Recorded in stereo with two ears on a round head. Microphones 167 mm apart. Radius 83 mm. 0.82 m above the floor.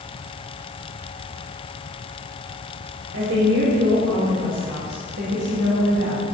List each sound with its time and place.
3.1 s a woman speaking: 70° right (ahead or behind), 3.5 m; by 6.2 s 80° right, 4.5 m